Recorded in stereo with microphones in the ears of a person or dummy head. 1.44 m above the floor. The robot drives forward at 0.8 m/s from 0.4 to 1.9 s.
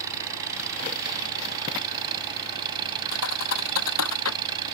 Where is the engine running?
20° right (ahead or behind); by 4.7 s 25° right (ahead or behind).